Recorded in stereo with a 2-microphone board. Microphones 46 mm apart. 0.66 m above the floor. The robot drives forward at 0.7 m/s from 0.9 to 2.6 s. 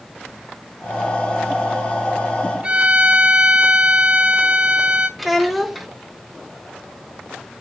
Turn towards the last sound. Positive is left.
turn(degrees=0)  # may be behind; listen again after turning